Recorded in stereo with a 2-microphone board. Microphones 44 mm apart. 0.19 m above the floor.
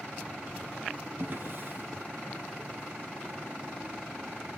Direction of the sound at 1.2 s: 50° right (ahead or behind).